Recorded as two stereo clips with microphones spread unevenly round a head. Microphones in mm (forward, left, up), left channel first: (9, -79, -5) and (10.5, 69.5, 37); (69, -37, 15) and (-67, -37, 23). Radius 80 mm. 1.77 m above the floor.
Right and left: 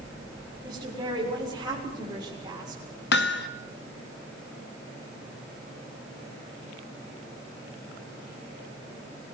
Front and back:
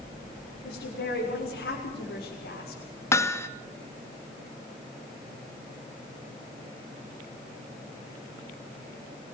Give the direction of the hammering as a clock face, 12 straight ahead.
2 o'clock.